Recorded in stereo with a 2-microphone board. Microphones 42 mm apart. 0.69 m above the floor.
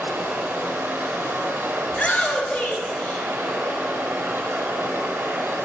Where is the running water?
80° right, 1.1 m.